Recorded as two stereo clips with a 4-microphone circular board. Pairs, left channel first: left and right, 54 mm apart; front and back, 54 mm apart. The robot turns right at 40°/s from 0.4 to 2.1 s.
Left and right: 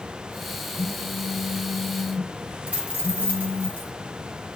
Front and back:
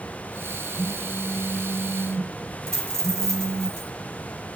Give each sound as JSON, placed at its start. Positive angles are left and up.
{"t": 0.8, "sound": "a phone buzzing", "azimuth_deg": 150, "distance_m": 3.0}
{"t": 2.7, "sound": "a dropped coin", "azimuth_deg": -145, "distance_m": 8.5}